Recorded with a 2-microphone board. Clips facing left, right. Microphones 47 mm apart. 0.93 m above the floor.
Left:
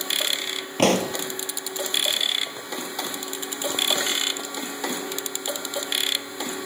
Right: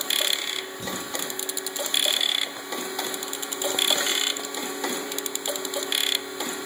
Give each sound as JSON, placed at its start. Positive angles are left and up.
{"t": 0.8, "sound": "a pop", "side_deg": 70}